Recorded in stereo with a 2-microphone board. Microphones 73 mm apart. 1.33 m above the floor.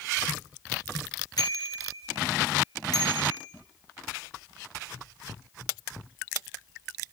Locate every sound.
1.4 s a bicycle bell: 60° left (ahead or behind), 3.5 m